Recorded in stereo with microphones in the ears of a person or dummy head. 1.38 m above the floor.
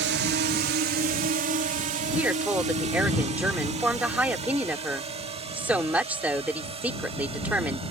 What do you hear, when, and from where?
0.0 s a drone: 55° right (ahead or behind); by 7.9 s 25° right (ahead or behind)
2.1 s a woman speaking: 5° right (ahead or behind)